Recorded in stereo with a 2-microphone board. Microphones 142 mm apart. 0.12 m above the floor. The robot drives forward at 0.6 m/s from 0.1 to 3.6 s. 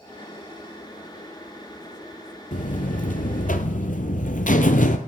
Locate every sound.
2.5 s a buzzer: 60° left (ahead or behind), 1.2 m; by 5.0 s 65° left (ahead or behind), 1.1 m